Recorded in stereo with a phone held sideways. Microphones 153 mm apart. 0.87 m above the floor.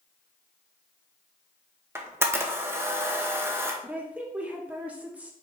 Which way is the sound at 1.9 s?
15° right (ahead or behind).